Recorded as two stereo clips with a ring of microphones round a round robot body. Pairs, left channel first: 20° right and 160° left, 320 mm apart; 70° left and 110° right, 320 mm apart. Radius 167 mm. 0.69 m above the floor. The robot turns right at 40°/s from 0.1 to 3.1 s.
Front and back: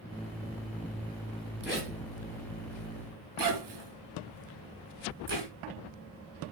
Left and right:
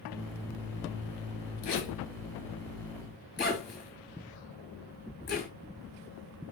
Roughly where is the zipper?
Left.